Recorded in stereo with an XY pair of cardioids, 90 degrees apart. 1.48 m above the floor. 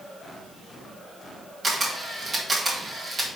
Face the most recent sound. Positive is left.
turn(degrees=-35)